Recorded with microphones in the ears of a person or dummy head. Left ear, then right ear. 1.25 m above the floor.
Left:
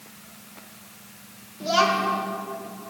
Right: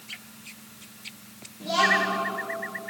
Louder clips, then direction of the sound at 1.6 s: Left 1 dB; 50° left (ahead or behind).